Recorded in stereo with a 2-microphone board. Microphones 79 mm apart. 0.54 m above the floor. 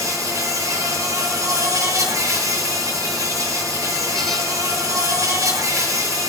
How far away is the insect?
About 9.5 m.